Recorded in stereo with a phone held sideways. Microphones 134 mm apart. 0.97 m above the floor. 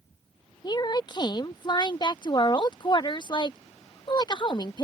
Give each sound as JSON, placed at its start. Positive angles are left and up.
{"t": 0.6, "sound": "a woman speaking", "side_deg": 30}